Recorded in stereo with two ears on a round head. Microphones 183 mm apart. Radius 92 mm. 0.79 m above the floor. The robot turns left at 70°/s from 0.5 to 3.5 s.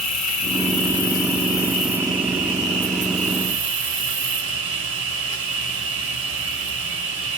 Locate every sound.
0.0 s an insect: 95° left, 1.8 m; by 7.4 s 115° right, 1.8 m